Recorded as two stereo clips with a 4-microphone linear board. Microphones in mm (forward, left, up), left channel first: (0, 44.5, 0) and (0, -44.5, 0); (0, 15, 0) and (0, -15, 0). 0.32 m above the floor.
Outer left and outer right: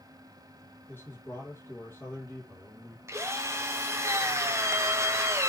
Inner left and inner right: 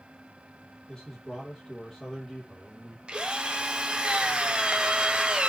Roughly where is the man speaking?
Left.